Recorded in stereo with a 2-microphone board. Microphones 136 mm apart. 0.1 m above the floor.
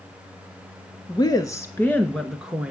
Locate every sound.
1.1 s a woman speaking: 35° left (ahead or behind), 1.2 m; by 2.7 s 10° right (ahead or behind), 1.1 m